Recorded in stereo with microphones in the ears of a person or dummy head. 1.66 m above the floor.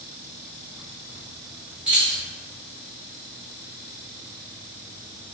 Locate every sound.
1.9 s keys jangling: 5° right (ahead or behind), 0.9 m